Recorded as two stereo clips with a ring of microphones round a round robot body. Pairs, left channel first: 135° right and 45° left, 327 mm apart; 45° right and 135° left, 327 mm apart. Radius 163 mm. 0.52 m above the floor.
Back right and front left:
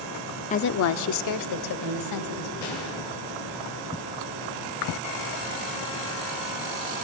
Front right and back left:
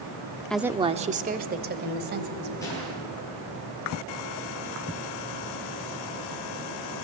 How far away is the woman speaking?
About 0.6 m.